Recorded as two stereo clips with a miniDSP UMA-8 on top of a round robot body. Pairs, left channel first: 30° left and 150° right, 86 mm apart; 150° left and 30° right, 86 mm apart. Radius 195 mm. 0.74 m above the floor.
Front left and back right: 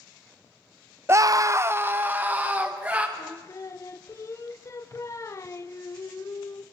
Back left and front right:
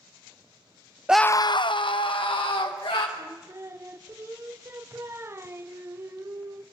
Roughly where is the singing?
Ahead.